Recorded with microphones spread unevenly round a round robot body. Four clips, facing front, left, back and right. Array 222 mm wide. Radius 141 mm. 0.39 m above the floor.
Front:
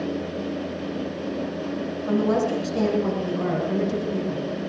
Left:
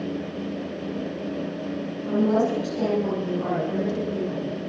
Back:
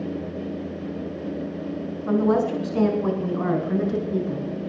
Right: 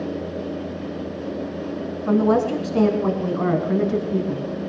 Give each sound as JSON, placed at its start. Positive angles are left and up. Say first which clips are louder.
{"t": 2.1, "sound": "a woman speaking", "louder": "right 3 dB, back 2 dB", "azimuth_deg": -95, "distance_m": 5.5}